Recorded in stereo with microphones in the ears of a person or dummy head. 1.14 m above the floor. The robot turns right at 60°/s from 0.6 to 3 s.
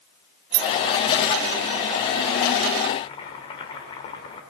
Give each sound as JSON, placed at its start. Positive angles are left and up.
{"t": 0.5, "sound": "keys jangling", "side_deg": -80, "distance_m": 2.5}
{"t": 3.0, "sound": "chopping", "side_deg": 30, "distance_m": 3.0}